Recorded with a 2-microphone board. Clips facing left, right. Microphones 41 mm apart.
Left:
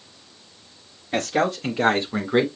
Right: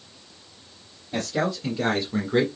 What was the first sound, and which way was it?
A man speaking, 60° left (ahead or behind).